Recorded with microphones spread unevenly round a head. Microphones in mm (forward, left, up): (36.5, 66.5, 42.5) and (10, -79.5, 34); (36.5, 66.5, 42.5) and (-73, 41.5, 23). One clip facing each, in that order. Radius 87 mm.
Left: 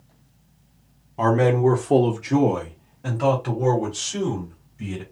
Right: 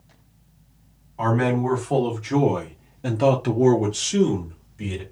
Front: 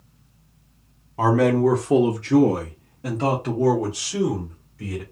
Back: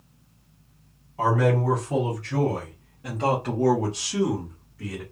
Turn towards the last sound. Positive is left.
turn(degrees=-80)